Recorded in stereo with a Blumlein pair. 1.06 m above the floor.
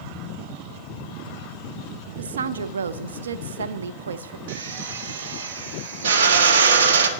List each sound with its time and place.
2.2 s a woman speaking: 65° right, 0.6 m
4.5 s a drill: 60° right, 1.2 m